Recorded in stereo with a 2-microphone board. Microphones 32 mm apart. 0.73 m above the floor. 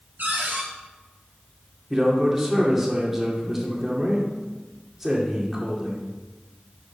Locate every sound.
0.2 s a cupboard door: 60° right (ahead or behind), 4 m
1.9 s a man speaking: 10° right (ahead or behind), 2 m